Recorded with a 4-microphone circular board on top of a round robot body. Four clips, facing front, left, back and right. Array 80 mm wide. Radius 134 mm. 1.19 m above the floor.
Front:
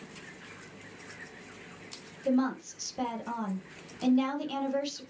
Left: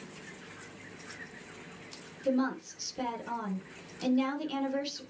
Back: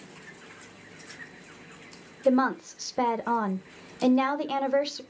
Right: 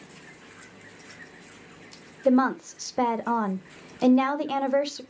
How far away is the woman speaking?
About 1.2 m.